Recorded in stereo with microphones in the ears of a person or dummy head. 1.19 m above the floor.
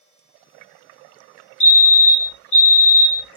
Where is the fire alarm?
30° left (ahead or behind), 1.7 m.